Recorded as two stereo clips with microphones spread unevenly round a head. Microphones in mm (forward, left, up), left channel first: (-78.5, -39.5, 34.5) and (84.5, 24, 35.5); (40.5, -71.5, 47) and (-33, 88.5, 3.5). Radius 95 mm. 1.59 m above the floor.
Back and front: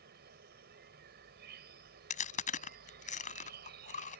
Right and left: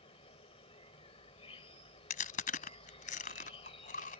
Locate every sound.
0.0 s an insect: 10° right
2.1 s chewing: 110° right